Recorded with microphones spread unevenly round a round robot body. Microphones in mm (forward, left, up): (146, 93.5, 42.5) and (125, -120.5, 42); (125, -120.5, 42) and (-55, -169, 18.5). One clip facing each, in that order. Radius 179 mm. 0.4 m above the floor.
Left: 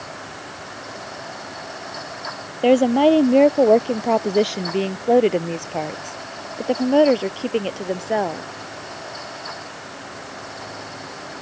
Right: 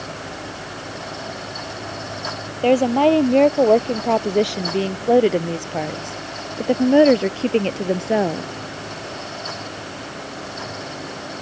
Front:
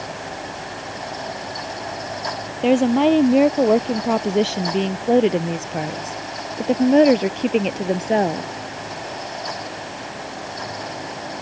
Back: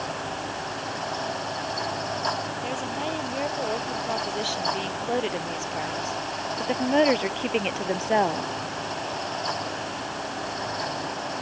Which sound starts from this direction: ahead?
A woman speaking, at 2.6 s.